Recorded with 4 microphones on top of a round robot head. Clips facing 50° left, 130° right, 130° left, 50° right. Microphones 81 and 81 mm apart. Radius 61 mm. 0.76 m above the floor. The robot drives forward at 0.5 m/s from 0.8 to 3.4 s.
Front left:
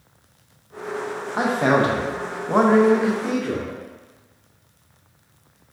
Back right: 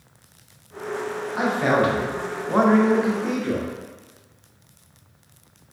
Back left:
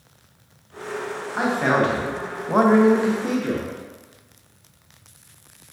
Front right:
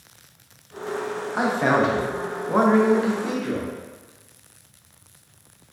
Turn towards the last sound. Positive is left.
turn(degrees=155)